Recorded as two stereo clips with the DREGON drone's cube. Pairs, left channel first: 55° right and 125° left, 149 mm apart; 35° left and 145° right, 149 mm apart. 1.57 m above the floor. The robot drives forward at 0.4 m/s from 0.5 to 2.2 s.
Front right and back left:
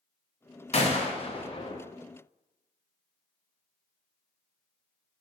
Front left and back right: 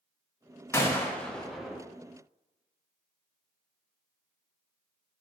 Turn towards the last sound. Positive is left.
turn(degrees=-95)